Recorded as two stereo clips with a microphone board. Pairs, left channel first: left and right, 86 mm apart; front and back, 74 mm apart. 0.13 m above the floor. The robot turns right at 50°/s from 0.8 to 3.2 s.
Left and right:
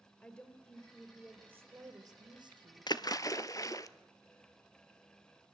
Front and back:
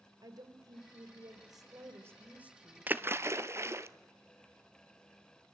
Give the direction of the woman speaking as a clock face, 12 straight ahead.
7 o'clock.